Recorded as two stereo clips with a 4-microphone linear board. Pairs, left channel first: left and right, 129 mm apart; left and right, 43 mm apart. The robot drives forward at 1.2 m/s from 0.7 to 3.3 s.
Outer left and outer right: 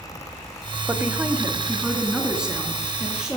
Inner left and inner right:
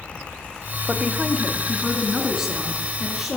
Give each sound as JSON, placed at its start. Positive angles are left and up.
{"t": 0.9, "sound": "a woman speaking", "side_deg": -15, "distance_m": 1.0}